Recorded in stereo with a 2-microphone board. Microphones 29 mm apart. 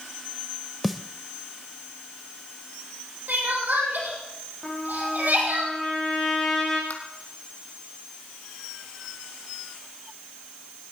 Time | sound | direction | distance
0.8 | a snare drum | centre (ahead or behind) | 0.6 m
3.3 | crying | 85° right | 6.5 m
4.6 | a trumpet | 15° left (ahead or behind) | 9.5 m
6.9 | tapping | 60° left (ahead or behind) | 2.5 m